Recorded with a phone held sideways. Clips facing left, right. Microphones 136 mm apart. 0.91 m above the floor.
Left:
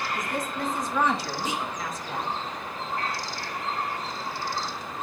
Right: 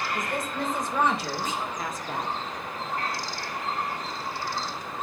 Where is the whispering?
15° left (ahead or behind), 1.0 m.